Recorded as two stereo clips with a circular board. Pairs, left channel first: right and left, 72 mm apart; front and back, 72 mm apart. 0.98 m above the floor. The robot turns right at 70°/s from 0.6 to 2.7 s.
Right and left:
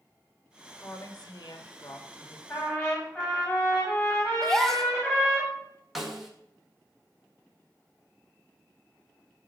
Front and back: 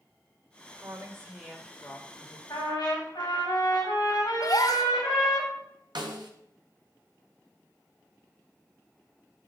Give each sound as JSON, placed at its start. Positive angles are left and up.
{"t": 0.8, "sound": "a woman speaking", "azimuth_deg": -150, "distance_m": 1.8}
{"t": 2.5, "sound": "a trumpet", "azimuth_deg": -35, "distance_m": 5.0}
{"t": 4.4, "sound": "a gasp", "azimuth_deg": -5, "distance_m": 0.8}
{"t": 6.0, "sound": "a snare drum", "azimuth_deg": 175, "distance_m": 1.7}